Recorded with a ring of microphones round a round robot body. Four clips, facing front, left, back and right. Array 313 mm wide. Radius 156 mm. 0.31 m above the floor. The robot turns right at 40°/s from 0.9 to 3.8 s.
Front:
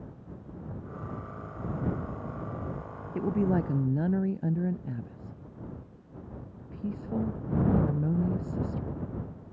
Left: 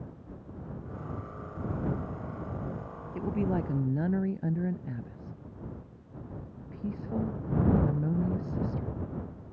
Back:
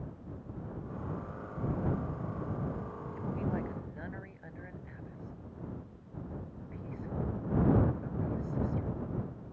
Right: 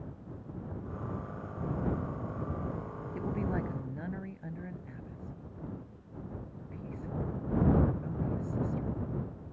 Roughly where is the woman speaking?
Ahead.